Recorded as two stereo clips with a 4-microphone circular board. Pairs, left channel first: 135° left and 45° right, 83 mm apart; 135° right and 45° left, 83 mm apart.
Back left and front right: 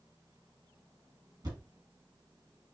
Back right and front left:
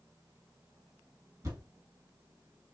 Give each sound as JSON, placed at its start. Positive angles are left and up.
{"t": 1.4, "sound": "a thud", "azimuth_deg": -10, "distance_m": 1.6}